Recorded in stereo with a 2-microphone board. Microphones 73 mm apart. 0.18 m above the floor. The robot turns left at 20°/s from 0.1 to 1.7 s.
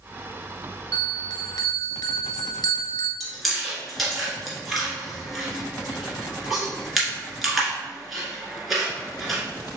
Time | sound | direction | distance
0.9 | a bell | 70° left (ahead or behind) | 0.7 m
3.2 | chewing | centre (ahead or behind) | 1.6 m